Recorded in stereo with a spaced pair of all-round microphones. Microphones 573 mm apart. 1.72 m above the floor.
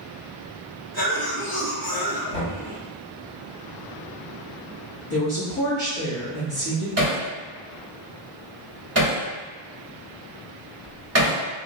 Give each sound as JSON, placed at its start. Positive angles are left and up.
{"t": 0.9, "sound": "a cough", "side_deg": 40, "distance_m": 1.3}
{"t": 2.3, "sound": "knocking", "side_deg": 70, "distance_m": 1.4}
{"t": 5.1, "sound": "a woman speaking", "side_deg": 80, "distance_m": 1.6}
{"t": 7.0, "sound": "hammering", "side_deg": -25, "distance_m": 1.0}